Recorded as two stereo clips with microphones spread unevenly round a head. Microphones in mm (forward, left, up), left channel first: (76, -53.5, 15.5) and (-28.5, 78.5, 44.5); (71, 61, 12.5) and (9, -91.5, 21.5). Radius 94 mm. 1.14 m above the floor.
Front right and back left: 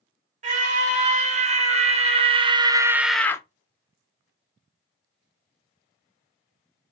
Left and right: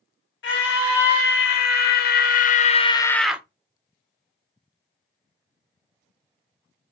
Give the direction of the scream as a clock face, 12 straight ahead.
9 o'clock.